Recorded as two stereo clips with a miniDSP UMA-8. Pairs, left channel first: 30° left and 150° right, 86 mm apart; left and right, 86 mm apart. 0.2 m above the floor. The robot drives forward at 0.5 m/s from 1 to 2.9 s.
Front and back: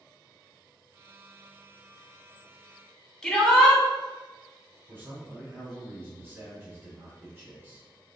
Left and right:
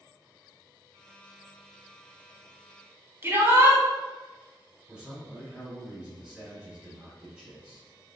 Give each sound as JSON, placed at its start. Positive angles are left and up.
{"t": 3.2, "sound": "a shout", "azimuth_deg": -60, "distance_m": 1.9}
{"t": 4.9, "sound": "a man speaking", "azimuth_deg": -150, "distance_m": 1.4}